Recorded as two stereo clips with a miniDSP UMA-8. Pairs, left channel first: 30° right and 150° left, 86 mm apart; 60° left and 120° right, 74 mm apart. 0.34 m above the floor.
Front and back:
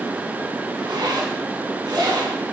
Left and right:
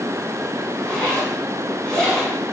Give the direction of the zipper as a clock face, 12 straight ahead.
7 o'clock.